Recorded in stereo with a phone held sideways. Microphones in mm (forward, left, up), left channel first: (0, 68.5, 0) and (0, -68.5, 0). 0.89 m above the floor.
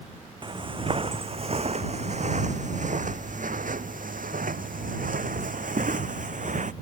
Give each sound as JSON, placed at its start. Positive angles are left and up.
{"t": 0.4, "sound": "footsteps", "side_deg": -35}